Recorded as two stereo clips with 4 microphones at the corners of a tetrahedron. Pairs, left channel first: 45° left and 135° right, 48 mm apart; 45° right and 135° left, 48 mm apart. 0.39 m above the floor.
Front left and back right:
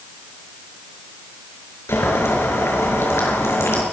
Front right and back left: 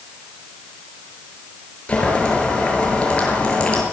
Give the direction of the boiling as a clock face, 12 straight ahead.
11 o'clock.